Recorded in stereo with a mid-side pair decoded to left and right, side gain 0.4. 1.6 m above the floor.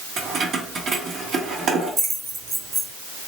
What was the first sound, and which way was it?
Keys jangling, 65° right.